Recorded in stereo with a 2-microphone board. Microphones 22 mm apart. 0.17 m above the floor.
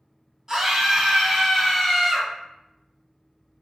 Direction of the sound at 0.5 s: 20° right (ahead or behind).